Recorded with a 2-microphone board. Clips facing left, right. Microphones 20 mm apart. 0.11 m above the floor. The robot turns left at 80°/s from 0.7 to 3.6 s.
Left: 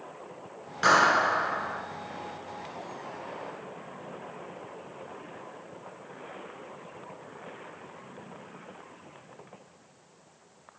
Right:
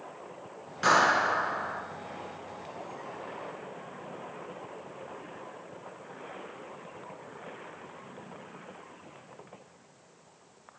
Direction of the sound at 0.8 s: 20° left (ahead or behind).